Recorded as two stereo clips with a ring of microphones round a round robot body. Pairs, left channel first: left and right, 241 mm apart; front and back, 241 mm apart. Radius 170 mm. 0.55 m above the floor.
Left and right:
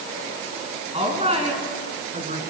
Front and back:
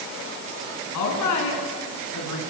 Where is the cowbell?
No cowbell in this recording.